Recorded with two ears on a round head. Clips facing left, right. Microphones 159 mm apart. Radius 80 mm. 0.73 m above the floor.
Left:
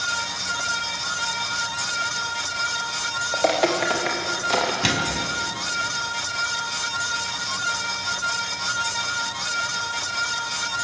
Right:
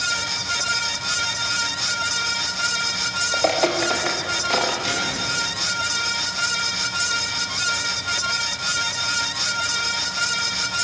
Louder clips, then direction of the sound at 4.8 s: Left 2 dB; 80° left.